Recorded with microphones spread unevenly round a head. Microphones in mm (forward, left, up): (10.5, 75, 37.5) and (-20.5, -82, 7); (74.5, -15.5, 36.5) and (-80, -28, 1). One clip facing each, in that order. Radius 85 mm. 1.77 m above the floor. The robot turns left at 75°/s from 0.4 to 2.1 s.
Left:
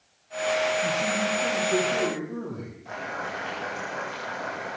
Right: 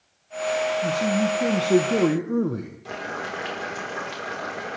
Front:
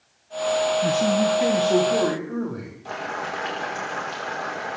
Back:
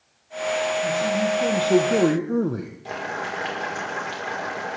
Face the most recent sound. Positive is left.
turn(degrees=-105)